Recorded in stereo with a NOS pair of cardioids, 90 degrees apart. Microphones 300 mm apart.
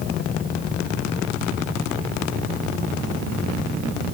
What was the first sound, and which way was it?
Only background noise.